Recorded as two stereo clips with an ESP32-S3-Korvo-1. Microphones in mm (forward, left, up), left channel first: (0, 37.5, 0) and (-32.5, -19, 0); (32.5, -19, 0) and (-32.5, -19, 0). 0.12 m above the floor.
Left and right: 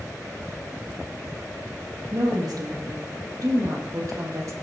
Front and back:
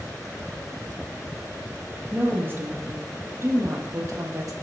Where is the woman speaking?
120° right, 5 m; by 4.5 s 155° right, 4 m.